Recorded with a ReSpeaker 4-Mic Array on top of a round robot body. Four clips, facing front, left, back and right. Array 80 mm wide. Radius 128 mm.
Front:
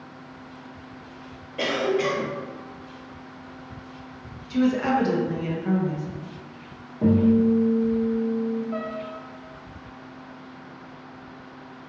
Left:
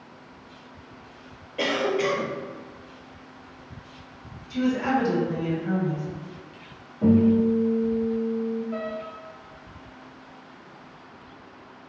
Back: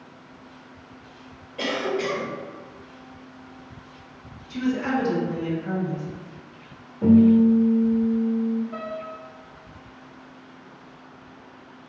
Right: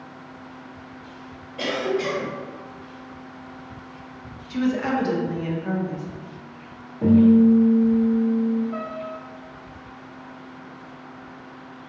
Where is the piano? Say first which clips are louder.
Right 1 dB, front 2 dB; 5° left, 1.1 m.